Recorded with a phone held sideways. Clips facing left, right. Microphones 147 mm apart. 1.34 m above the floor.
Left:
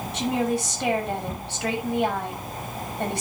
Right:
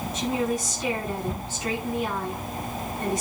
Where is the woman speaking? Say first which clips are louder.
Left 2 dB; 70° left (ahead or behind), 7.5 m.